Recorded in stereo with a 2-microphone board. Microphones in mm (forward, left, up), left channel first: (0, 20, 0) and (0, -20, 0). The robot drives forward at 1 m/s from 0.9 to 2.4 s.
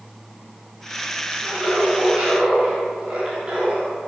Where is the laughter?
20° right (ahead or behind), 4.5 m; by 3.9 s 25° right (ahead or behind), 3.5 m.